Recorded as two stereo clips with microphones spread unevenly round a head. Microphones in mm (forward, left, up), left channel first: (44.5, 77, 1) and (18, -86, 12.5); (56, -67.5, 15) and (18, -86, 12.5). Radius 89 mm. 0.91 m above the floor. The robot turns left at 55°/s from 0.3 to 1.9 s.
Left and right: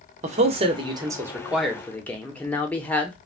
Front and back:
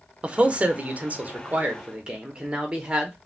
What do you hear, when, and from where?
0.2 s a man speaking: 120° right, 0.9 m; by 3.1 s 150° left, 0.9 m